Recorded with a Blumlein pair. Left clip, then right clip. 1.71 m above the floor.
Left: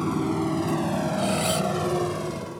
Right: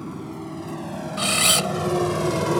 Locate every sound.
0.0 s a motorcycle: 30° left; by 2.6 s 40° right
1.2 s a camera shutter: 30° right